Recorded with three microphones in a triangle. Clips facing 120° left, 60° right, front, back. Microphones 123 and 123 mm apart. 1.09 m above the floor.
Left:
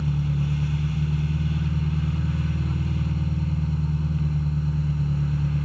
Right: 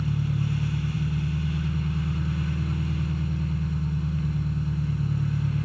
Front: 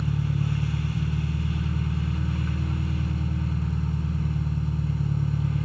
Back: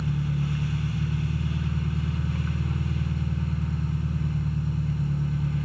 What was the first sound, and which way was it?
An engine running, 65° left.